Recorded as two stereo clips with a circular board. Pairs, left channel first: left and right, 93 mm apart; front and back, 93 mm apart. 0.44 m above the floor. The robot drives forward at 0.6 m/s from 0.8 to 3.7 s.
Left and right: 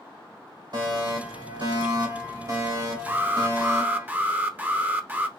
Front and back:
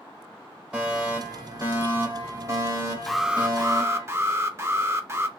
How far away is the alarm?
About 0.6 m.